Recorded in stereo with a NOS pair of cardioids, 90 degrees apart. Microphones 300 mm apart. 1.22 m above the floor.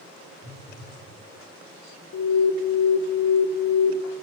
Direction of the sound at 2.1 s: 65° left.